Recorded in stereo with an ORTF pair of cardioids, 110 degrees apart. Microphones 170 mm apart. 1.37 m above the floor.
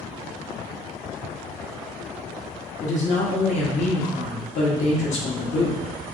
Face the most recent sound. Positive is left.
turn(degrees=50)